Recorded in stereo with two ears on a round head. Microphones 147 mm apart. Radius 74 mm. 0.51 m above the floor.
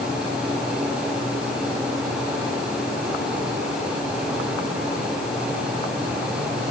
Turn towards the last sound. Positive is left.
No sound to turn to.